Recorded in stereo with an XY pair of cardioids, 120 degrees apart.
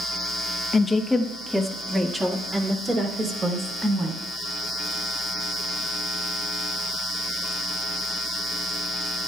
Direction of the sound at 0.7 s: 30° left.